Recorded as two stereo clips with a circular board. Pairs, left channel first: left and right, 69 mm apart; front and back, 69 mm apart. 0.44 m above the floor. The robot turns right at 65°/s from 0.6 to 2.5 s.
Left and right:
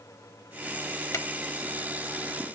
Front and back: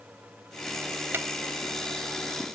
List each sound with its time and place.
1.1 s a drawer: 125° left; by 1.2 s 135° left